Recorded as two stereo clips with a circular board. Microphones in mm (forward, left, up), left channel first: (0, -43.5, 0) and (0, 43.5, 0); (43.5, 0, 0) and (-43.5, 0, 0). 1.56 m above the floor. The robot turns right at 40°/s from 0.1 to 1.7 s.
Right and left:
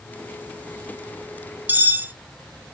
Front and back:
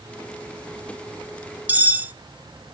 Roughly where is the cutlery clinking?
Behind left.